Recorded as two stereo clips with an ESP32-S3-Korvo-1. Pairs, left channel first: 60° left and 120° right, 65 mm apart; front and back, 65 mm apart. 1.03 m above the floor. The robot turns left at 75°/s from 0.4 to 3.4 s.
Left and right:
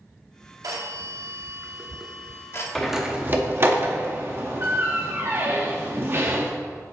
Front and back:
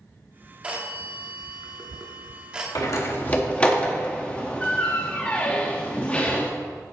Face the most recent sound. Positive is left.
turn(degrees=-70)